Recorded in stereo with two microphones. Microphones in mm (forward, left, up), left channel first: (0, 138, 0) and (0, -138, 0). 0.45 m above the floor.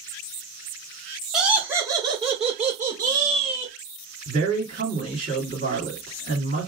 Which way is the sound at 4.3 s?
30° right (ahead or behind).